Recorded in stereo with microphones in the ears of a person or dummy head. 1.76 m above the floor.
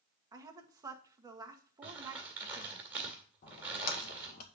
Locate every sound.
0.3 s a woman speaking: 15° right (ahead or behind), 1.3 m
1.8 s crumpling: 10° right (ahead or behind), 1.9 m
3.4 s a splash: 45° left (ahead or behind), 1.8 m